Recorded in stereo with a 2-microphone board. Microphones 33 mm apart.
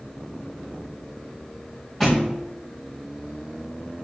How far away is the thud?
About 4.5 m.